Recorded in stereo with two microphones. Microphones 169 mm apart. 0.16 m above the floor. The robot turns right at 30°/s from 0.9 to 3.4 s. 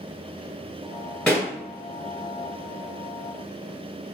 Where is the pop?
5° left (ahead or behind), 1.2 m.